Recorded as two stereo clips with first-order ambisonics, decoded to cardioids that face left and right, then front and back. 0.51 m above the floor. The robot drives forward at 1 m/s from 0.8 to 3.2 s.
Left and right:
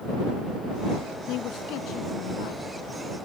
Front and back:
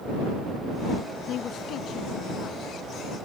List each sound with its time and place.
1.3 s a man speaking: 50° left; by 2.6 s 60° left